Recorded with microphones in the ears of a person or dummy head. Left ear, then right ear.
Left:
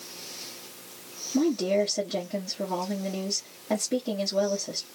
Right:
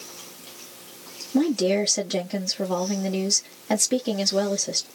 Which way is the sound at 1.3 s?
65° right (ahead or behind).